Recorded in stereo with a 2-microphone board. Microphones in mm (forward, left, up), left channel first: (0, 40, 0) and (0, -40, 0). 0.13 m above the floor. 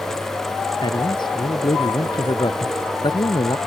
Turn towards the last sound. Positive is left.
turn(degrees=75)  # may be behind; listen again after turning